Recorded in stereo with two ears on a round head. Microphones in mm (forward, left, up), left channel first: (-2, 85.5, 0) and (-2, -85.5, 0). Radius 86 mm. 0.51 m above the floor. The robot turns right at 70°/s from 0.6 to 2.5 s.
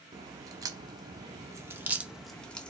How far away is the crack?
About 0.6 m.